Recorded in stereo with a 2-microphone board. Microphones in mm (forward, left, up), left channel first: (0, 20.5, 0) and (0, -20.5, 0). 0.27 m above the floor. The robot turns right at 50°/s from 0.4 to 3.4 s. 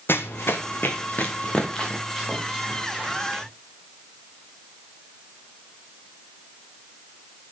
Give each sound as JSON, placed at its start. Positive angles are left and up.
{"t": 0.1, "sound": "running footsteps", "side_deg": 70, "distance_m": 0.8}